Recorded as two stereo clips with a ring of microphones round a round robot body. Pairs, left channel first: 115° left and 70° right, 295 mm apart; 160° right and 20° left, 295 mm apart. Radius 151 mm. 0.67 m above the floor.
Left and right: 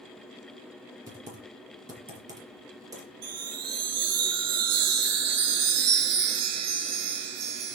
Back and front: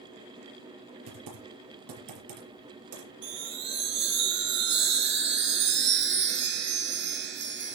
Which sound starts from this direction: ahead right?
A chime, at 3.2 s.